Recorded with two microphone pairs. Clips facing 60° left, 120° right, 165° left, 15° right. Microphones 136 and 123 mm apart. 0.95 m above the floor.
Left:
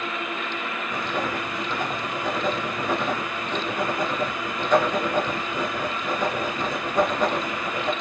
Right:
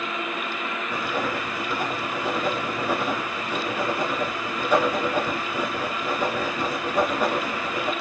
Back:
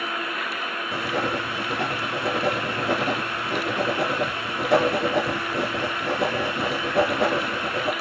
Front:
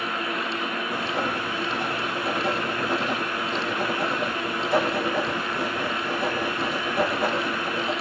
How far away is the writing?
About 3 m.